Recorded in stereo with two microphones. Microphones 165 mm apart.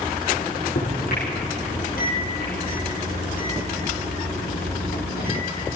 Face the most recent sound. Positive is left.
turn(degrees=70)  # may be behind; listen again after turning